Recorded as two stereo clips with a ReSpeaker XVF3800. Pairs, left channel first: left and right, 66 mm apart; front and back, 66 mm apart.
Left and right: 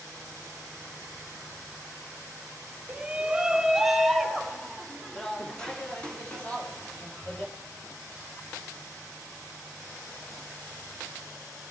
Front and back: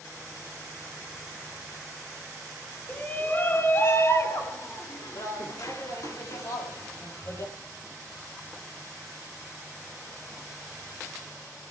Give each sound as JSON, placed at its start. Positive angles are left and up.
{"t": 2.9, "sound": "a shout", "azimuth_deg": -45, "distance_m": 1.2}